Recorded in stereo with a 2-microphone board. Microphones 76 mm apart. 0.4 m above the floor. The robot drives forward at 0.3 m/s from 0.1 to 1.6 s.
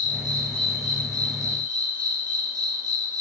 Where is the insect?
65° right (ahead or behind), 3.5 m; by 3.2 s 60° right (ahead or behind), 3.5 m.